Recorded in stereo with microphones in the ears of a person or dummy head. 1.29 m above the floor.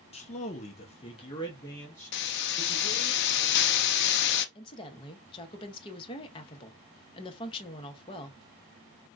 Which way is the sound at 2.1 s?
65° left (ahead or behind).